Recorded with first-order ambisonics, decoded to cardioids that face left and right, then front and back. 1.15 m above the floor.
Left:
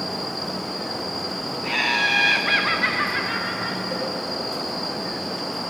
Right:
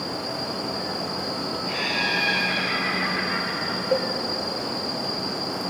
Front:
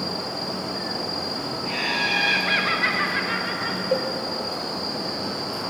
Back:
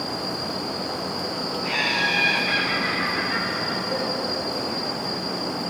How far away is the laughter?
About 0.9 m.